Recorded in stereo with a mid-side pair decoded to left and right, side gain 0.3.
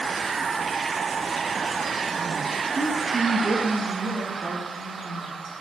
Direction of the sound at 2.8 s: 35° right.